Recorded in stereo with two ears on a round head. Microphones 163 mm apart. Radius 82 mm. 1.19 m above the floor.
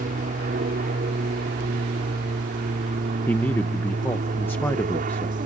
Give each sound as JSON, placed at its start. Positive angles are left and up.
{"t": 0.0, "sound": "an aircraft", "side_deg": -50}
{"t": 3.3, "sound": "a man speaking", "side_deg": 10}